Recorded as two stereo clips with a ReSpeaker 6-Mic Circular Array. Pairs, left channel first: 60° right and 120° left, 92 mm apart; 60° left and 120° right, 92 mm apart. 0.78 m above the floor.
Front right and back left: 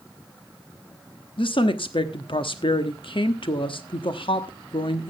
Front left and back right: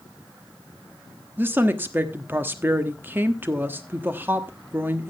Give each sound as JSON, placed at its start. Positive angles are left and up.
{"t": 1.4, "sound": "a woman speaking", "azimuth_deg": -55, "distance_m": 1.1}